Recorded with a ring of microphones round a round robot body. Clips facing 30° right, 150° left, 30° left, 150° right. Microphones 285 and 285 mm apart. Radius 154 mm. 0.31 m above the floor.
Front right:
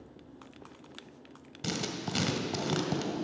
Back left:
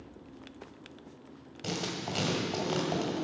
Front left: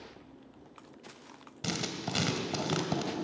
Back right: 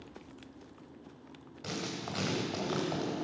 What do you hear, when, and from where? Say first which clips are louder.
1.6 s writing: even, front left 2 dB; 15° left, 2.0 m